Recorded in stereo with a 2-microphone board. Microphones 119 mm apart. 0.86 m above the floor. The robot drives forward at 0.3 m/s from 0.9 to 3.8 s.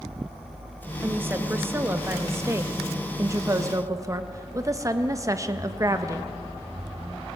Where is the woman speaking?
20° right (ahead or behind), 1.4 m; by 6.3 s 30° right (ahead or behind), 0.9 m.